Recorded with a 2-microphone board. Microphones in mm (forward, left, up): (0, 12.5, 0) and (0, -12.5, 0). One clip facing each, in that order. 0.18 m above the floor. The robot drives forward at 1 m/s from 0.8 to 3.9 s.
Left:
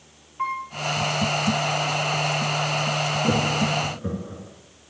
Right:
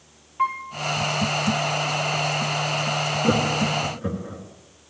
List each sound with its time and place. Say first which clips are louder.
0.4 s a piano: right 3 dB; 15° right (ahead or behind), 3.5 m
3.2 s laughter: right 2 dB; 25° right (ahead or behind), 2.5 m; by 4.4 s 20° right (ahead or behind), 2.5 m